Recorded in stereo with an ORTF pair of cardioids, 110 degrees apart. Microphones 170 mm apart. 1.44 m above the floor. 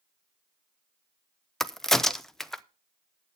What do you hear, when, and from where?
1.6 s a crack: straight ahead, 0.6 m